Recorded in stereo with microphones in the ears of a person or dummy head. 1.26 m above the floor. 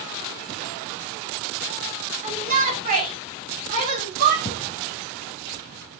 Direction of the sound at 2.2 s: 40° right (ahead or behind).